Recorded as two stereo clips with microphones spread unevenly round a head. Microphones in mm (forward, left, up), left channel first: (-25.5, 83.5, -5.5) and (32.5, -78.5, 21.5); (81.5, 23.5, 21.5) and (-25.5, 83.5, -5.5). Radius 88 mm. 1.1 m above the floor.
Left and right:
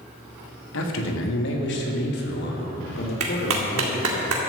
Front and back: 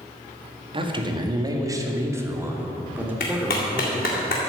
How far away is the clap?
About 2 m.